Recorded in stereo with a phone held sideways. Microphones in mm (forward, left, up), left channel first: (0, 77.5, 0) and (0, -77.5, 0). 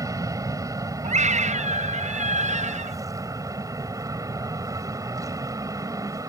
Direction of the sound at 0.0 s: 20° right (ahead or behind).